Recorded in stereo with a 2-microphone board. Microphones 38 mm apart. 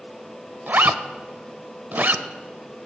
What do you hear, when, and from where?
0.7 s a zipper: 50° right (ahead or behind), 0.5 m